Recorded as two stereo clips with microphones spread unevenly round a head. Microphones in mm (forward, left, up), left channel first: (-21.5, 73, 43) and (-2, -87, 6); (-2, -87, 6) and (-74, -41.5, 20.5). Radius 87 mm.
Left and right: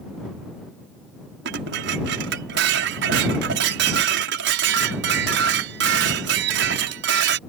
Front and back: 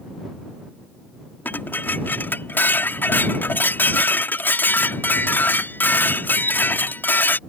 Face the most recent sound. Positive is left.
turn(degrees=-105)